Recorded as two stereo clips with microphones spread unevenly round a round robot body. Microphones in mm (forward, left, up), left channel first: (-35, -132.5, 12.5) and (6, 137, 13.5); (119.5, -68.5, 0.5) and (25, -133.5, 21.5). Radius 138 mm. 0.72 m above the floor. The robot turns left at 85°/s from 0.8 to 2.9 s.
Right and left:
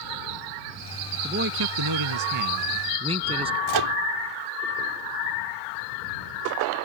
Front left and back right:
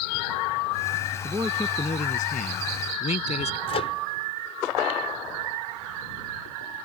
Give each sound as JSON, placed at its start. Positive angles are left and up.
{"t": 1.2, "sound": "a man speaking", "azimuth_deg": 150}
{"t": 3.7, "sound": "a microwave", "azimuth_deg": 80}